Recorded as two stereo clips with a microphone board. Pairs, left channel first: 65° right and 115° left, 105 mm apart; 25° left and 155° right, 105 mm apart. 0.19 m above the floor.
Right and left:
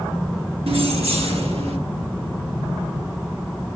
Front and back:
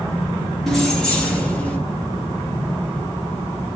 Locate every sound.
0.7 s keys jangling: 110° left, 2 m; by 1.8 s 100° left, 3 m